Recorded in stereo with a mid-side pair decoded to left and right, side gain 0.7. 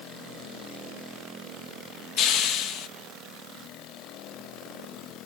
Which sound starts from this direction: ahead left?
A hiss, at 2.2 s.